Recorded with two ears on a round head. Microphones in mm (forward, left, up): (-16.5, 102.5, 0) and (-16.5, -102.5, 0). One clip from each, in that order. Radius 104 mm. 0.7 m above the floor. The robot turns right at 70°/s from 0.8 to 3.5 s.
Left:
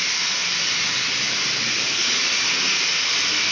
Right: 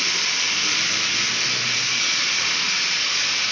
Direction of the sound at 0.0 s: 70° right.